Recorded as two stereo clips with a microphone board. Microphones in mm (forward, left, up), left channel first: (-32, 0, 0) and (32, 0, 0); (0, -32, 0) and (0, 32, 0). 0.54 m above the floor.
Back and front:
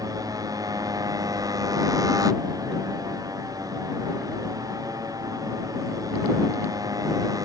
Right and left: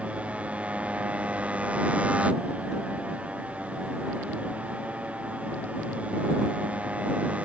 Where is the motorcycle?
20° left; by 7.5 s 25° left.